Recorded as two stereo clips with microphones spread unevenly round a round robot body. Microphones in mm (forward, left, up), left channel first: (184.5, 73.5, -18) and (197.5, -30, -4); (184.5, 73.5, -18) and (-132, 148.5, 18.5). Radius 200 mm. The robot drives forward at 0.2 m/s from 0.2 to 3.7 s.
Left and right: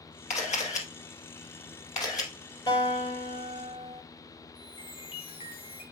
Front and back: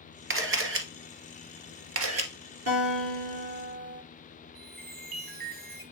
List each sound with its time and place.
0.3 s a camera shutter: 115° left, 1.9 m; by 2.3 s 125° left, 2 m
2.7 s a guitar: 125° left, 5.5 m; by 4.0 s 130° left, 5.5 m
4.5 s a chime: 105° left, 4 m